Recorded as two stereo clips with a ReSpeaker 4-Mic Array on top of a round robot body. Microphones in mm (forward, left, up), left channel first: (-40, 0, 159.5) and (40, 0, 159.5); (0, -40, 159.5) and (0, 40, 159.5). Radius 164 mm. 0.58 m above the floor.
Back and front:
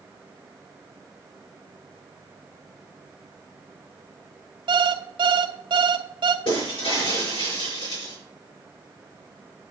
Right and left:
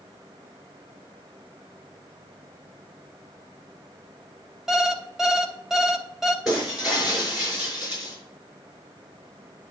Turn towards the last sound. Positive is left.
turn(degrees=175)